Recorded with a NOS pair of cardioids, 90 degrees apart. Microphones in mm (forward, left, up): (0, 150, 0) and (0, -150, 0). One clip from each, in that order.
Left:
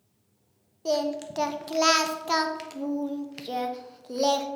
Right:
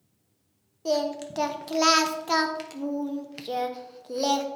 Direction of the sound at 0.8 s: Straight ahead.